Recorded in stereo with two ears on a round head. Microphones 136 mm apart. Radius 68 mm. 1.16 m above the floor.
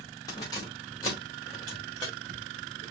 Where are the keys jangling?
25° left (ahead or behind), 1.7 m.